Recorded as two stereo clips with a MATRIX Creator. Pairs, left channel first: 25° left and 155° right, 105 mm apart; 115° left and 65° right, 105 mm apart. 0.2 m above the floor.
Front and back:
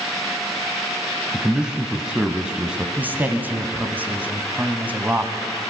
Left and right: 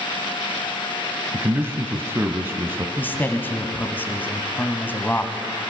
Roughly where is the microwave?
I don't hear a microwave.